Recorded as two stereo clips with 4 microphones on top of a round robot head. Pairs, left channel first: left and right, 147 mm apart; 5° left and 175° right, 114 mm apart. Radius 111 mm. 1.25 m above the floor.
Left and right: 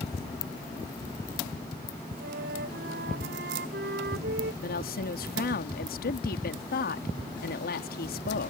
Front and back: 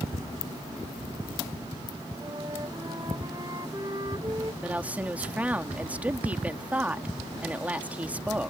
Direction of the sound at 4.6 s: 110° left.